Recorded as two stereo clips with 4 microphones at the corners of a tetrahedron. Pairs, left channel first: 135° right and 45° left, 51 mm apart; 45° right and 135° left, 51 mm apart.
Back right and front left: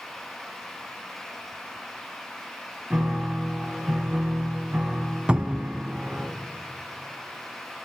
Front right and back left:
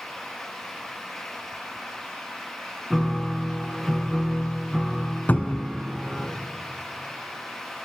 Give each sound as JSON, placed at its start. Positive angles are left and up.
{"t": 2.9, "sound": "a piano", "azimuth_deg": 45, "distance_m": 1.7}
{"t": 5.3, "sound": "a cupboard door", "azimuth_deg": -15, "distance_m": 0.6}